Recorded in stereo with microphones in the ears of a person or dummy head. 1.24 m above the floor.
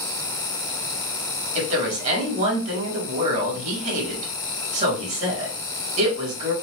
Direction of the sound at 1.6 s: 45° right (ahead or behind).